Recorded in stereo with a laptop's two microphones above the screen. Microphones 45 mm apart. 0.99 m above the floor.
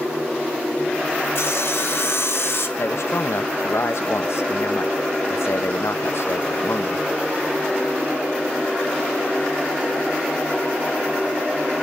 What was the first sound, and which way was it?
Sawing, 65° left (ahead or behind).